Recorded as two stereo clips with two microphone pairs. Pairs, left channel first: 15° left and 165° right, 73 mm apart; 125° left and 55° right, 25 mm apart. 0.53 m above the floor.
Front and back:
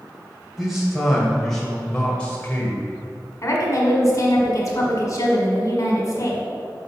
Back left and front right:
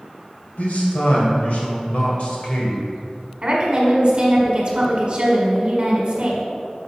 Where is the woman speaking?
20° right, 1.6 m.